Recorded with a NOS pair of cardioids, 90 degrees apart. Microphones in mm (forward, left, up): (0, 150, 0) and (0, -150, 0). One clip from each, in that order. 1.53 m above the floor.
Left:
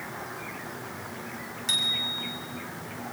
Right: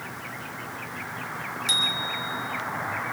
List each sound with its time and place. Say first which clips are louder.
1.7 s a bicycle bell: right 2 dB; 10° right, 6 m